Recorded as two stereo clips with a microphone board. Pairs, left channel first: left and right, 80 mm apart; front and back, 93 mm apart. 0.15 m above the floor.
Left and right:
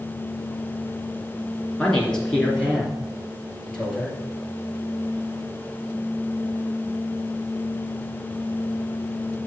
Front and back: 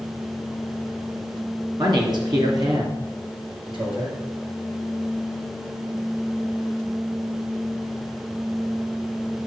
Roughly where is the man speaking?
Behind.